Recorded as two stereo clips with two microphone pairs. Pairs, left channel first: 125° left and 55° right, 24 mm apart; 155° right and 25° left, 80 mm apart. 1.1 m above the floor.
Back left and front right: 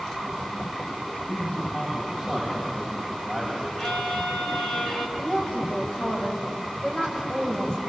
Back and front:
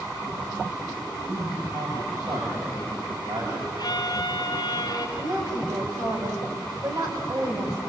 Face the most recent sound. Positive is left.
turn(degrees=60)